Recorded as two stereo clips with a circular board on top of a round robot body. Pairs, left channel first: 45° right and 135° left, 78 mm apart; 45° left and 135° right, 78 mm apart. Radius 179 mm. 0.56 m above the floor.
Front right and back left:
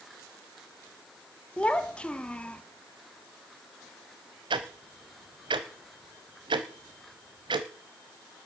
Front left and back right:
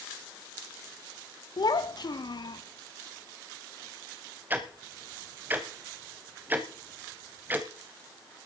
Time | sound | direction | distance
1.6 | a child speaking | 30° left | 1.2 m
4.5 | ticking | 160° left | 0.7 m